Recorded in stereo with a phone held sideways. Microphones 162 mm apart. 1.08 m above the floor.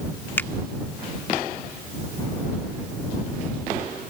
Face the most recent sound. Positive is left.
turn(degrees=10)  # may be behind; listen again after turning